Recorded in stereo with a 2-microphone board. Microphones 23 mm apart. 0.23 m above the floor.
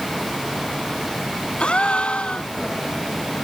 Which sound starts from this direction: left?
A gasp, at 1.6 s.